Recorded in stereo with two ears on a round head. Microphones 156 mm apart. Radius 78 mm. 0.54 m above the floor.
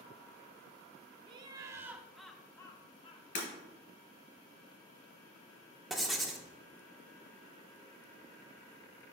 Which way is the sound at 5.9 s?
Centre (ahead or behind).